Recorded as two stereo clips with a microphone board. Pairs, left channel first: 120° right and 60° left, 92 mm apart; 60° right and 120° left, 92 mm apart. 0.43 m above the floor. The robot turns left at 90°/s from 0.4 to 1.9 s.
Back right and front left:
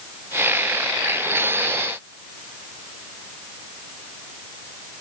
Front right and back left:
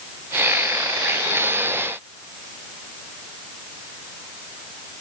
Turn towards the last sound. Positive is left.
No sound to turn to.